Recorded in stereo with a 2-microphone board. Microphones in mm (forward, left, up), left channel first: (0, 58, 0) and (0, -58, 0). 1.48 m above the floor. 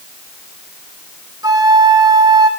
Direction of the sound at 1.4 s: 30° right (ahead or behind).